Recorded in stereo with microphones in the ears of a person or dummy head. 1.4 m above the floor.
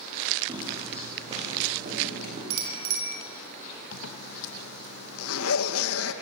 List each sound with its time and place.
0.5 s footsteps: 20° right (ahead or behind), 3.5 m; by 2.4 s 40° right (ahead or behind), 5 m
2.5 s a bicycle bell: 80° right, 4 m
3.9 s a zipper: 80° left, 1.3 m